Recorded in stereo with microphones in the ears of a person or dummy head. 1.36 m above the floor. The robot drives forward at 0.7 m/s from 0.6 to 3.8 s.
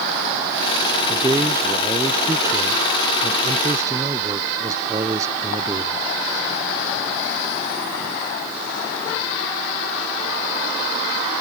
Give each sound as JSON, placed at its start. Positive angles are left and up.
{"t": 1.1, "sound": "a man speaking", "side_deg": -20}